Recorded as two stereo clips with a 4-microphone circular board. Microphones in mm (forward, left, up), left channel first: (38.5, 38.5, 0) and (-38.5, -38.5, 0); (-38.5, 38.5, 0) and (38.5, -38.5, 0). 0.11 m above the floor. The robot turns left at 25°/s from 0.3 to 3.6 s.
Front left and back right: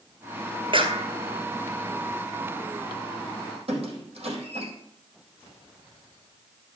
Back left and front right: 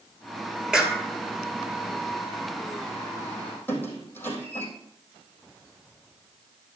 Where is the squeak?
155° right, 4 m.